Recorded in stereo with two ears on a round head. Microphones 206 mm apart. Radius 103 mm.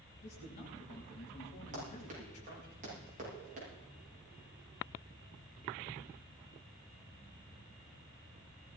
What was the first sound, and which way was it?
A man speaking, 35° left (ahead or behind).